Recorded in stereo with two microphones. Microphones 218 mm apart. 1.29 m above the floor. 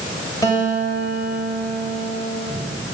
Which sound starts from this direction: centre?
A guitar, at 0.4 s.